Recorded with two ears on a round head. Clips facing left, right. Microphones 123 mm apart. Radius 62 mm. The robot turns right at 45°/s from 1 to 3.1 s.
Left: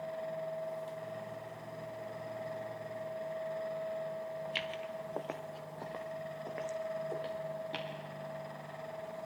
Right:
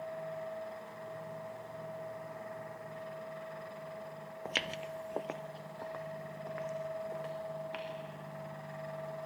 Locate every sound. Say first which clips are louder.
4.5 s footsteps: even; 55° right (ahead or behind), 0.8 m; by 7.9 s 35° left (ahead or behind), 3.5 m